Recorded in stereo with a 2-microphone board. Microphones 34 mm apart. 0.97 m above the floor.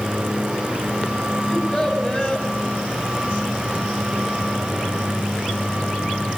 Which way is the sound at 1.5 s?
15° left (ahead or behind).